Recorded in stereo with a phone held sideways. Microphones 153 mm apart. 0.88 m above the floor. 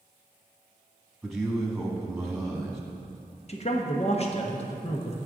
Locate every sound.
1.2 s a man speaking: centre (ahead or behind), 1.2 m
3.5 s a man speaking: 45° left (ahead or behind), 0.8 m